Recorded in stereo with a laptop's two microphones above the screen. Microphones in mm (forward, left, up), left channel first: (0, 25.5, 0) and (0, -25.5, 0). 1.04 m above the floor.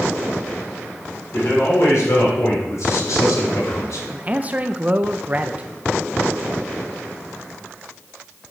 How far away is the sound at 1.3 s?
About 4 m.